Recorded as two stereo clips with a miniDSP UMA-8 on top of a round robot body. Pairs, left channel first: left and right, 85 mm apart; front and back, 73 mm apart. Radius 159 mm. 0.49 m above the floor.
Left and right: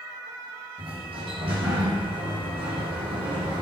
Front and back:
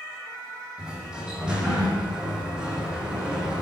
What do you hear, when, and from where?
0.8 s a sliding door: 100° right, 6.5 m